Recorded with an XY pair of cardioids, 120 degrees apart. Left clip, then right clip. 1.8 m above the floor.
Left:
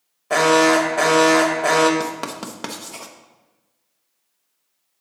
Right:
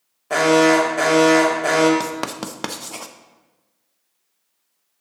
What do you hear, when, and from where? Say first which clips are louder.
0.3 s an alarm: even; 10° left, 1.1 m
2.0 s writing: right 1 dB; 20° right, 0.6 m